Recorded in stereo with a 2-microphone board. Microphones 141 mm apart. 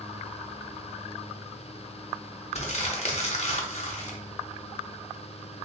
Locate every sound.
2.5 s crumpling: 50° left (ahead or behind), 0.6 m